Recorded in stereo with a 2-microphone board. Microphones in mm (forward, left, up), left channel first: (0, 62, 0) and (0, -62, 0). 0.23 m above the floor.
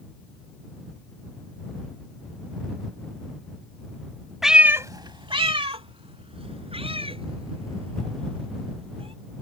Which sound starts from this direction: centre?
A cat meowing, at 4.4 s.